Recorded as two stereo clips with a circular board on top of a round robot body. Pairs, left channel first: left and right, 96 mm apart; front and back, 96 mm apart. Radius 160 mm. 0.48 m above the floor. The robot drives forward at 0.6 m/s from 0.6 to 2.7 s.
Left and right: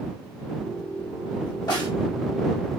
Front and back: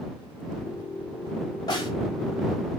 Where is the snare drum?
45° left, 4.5 m; by 1.9 s 50° left, 4.5 m.